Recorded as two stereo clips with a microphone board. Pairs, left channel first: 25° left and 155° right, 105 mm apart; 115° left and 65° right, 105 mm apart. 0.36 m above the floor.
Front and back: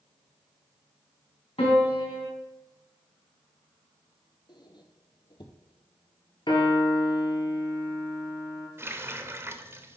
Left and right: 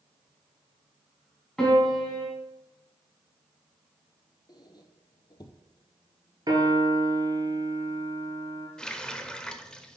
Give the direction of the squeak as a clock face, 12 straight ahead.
10 o'clock.